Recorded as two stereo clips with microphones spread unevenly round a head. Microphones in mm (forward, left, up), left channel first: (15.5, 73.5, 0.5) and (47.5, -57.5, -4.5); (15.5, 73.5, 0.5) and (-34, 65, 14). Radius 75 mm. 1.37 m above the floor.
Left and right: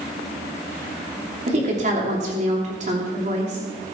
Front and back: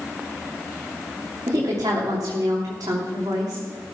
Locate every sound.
1.5 s a woman speaking: 125° right, 3 m